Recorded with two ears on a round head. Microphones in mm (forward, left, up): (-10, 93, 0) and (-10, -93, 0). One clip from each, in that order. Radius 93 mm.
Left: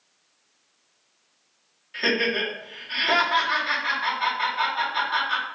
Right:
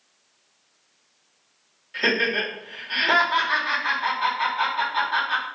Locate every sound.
1.9 s laughter: 5° left (ahead or behind), 1.4 m